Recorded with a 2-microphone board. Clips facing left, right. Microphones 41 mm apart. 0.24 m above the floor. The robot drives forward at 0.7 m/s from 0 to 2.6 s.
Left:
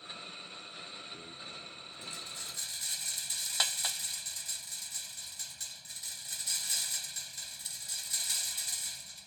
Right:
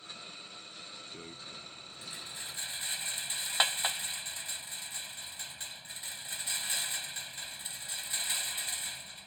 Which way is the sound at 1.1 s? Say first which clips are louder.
Even; 20° right (ahead or behind).